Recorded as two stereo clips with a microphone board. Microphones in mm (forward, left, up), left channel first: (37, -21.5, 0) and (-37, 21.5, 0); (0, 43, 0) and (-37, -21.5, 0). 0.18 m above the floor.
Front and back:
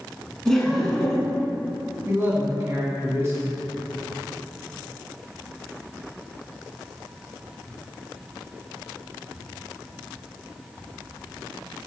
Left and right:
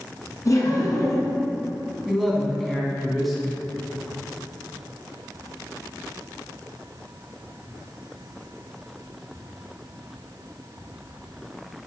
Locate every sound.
0.5 s laughter: 55° left, 1.6 m
2.0 s a man speaking: 150° left, 1.8 m